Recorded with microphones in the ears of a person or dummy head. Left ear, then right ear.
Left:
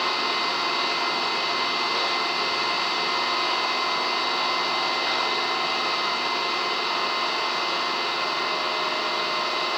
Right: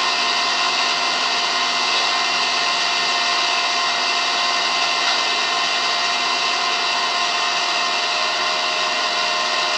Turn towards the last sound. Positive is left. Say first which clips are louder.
# right 5 dB
turn(degrees=-70)  # may be behind; listen again after turning